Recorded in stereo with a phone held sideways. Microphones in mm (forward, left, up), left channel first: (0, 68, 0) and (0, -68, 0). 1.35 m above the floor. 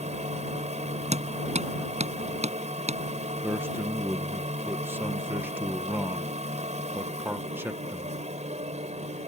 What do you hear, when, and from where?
0.0 s a machine running: 55° right (ahead or behind)
1.1 s hammering: 55° right (ahead or behind)
3.4 s a man speaking: 15° right (ahead or behind)